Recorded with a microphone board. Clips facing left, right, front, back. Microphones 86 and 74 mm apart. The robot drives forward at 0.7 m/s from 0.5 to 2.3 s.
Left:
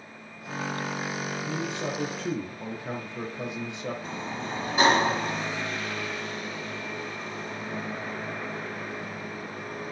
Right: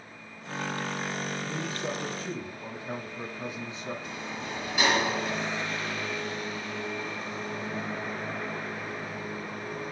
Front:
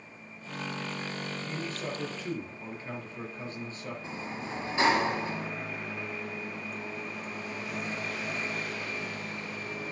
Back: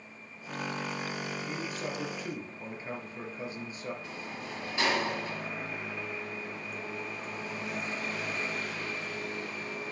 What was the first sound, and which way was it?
A man speaking, 95° left.